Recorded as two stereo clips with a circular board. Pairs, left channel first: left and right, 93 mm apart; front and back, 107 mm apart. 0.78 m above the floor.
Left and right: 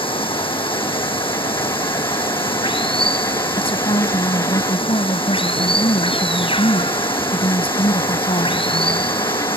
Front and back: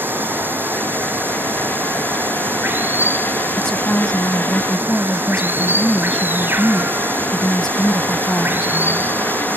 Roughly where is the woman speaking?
Left.